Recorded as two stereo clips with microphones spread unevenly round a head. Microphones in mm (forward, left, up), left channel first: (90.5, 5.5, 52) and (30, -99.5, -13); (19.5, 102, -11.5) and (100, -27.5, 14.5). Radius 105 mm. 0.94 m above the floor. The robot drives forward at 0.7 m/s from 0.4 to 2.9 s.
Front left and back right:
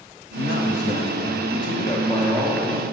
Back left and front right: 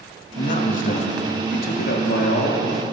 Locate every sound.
0.4 s a man speaking: 110° left, 1.5 m; by 2.8 s 150° left, 2.5 m